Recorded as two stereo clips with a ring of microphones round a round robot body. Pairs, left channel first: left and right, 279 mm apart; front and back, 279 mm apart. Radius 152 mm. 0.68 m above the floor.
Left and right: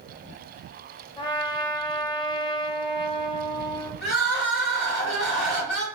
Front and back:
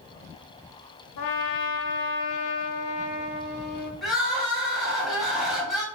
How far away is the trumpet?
About 0.5 m.